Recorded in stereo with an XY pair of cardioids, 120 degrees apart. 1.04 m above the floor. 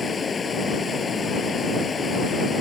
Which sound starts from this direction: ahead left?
Running water, at 0.0 s.